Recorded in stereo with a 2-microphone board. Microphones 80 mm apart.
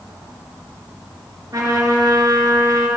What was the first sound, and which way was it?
A trumpet, 45° right (ahead or behind).